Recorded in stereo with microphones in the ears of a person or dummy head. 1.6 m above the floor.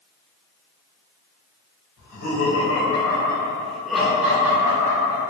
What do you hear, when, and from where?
2.0 s laughter: 55° left (ahead or behind), 1.0 m; by 5.2 s 20° right (ahead or behind), 1.9 m